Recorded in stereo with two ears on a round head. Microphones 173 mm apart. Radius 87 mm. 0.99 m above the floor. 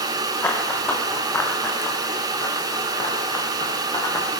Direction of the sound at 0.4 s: 10° left (ahead or behind).